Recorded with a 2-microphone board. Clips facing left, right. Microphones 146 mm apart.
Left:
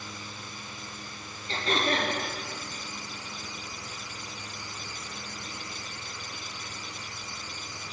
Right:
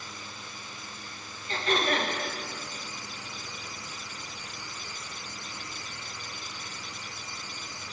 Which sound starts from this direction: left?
Throat clearing, at 1.5 s.